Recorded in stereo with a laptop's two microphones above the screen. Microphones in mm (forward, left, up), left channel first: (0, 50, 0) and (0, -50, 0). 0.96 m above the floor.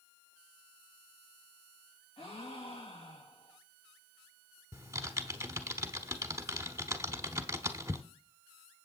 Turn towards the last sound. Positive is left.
turn(degrees=-30)  # may be behind; listen again after turning